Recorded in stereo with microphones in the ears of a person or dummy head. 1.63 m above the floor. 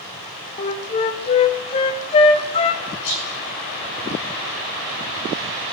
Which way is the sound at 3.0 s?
75° left (ahead or behind).